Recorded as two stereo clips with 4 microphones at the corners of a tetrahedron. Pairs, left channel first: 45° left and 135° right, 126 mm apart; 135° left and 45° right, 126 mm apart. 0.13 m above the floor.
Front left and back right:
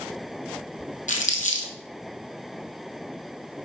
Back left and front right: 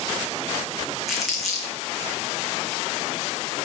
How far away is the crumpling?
About 1.9 m.